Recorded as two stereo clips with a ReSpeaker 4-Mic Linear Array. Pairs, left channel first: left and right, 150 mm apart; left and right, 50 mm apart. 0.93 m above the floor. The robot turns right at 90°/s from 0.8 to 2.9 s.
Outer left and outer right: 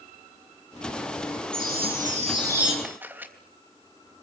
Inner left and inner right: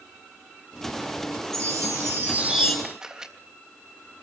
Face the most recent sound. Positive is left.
turn(degrees=-15)  # may be behind; listen again after turning